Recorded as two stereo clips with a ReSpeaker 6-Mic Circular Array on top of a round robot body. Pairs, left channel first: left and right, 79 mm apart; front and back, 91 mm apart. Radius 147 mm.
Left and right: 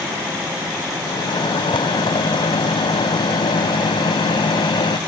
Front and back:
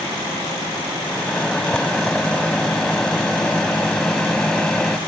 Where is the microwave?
80° left.